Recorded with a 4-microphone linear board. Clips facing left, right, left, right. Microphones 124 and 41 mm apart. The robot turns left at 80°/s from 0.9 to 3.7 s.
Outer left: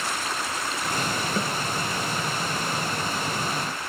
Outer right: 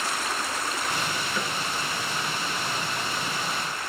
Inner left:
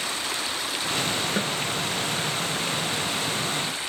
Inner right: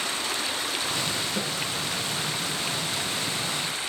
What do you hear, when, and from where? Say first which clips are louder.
1.4 s a snare drum: outer left 3 dB, inner left 3 dB; 40° left (ahead or behind), 2 m; by 1.5 s 25° left (ahead or behind), 2 m